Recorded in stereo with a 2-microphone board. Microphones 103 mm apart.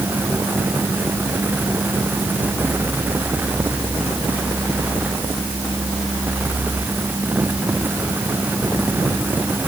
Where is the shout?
I don't hear a shout.